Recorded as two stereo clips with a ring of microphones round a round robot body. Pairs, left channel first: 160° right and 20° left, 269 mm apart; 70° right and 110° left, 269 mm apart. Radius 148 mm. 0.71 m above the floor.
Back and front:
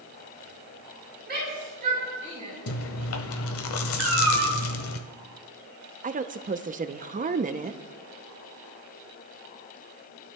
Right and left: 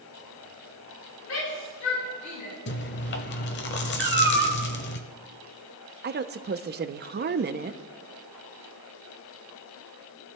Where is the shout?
30° right, 5.5 m; by 2.5 s 45° right, 5 m.